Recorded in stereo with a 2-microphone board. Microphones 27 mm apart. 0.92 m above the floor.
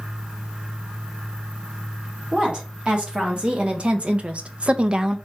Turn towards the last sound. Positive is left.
turn(degrees=-30)  # may be behind; listen again after turning